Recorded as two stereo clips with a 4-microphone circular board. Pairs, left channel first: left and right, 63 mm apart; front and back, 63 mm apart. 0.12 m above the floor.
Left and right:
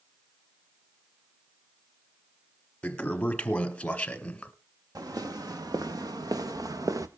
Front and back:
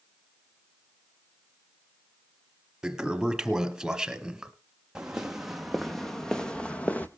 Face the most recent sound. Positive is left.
turn(degrees=-65)